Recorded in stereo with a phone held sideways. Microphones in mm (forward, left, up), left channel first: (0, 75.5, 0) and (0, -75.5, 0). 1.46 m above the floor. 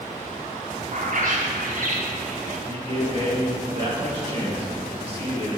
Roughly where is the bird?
Right.